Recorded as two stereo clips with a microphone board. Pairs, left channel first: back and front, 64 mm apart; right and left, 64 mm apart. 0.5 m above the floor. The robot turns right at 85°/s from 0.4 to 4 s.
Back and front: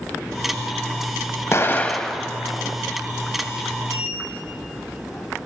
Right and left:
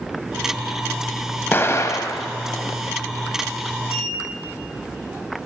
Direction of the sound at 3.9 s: 145° left.